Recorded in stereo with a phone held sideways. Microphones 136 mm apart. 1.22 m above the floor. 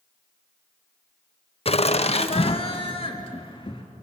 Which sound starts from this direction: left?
Laughter, at 1.6 s.